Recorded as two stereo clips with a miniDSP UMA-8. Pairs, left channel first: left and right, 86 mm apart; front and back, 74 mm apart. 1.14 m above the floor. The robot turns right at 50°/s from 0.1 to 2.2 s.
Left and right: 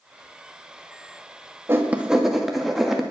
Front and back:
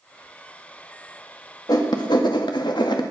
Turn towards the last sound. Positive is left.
turn(degrees=-5)